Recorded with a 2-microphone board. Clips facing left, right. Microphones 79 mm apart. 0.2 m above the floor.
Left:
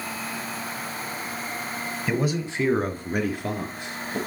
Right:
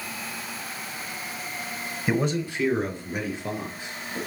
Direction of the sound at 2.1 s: 10° right (ahead or behind).